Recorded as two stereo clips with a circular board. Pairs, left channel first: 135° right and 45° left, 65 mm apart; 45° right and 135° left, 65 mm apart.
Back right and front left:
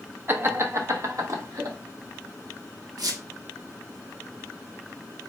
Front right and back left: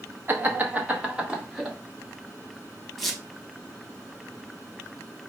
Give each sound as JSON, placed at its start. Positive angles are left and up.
{"t": 0.3, "sound": "laughter", "azimuth_deg": 90, "distance_m": 0.9}
{"t": 3.0, "sound": "a squeak", "azimuth_deg": 45, "distance_m": 0.8}